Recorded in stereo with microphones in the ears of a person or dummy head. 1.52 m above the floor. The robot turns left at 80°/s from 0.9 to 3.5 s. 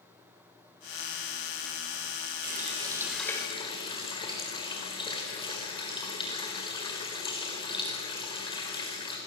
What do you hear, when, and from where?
2.4 s a running tap: 125° right, 4 m; by 9.2 s 150° left, 4 m